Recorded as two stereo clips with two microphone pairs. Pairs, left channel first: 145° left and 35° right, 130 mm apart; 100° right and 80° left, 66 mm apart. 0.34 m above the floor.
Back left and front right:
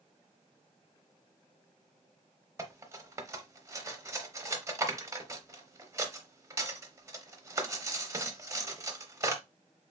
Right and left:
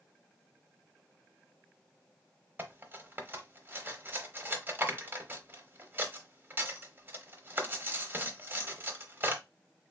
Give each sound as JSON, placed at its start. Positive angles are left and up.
{"t": 2.6, "sound": "cutlery clinking", "azimuth_deg": 25, "distance_m": 0.7}